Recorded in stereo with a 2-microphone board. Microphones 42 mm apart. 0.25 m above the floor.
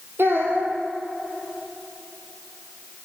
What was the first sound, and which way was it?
A child speaking, 70° right (ahead or behind).